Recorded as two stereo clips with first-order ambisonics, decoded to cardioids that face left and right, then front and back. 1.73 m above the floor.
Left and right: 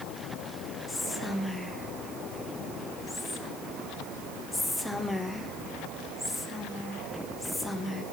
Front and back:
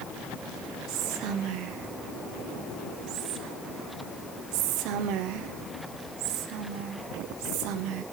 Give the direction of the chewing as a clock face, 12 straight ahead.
No chewing in this recording.